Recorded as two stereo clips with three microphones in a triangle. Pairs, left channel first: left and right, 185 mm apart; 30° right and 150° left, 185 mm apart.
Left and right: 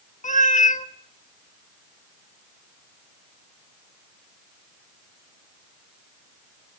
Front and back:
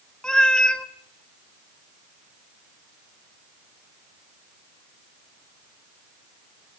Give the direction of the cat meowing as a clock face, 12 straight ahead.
10 o'clock.